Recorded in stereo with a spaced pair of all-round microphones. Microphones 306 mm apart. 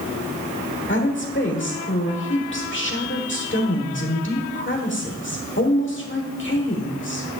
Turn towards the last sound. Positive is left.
turn(degrees=40)  # may be behind; listen again after turning